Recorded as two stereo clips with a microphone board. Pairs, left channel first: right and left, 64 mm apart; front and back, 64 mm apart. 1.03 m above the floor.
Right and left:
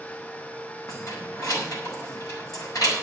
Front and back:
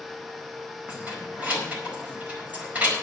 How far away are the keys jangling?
About 4.5 m.